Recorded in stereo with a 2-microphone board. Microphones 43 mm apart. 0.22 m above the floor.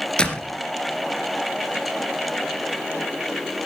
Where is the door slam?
20° left (ahead or behind), 2.5 m.